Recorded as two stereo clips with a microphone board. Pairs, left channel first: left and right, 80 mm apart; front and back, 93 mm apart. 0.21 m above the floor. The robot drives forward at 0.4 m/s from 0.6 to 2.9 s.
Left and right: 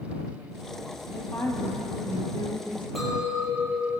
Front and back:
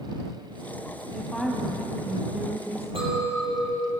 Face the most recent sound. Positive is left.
turn(degrees=180)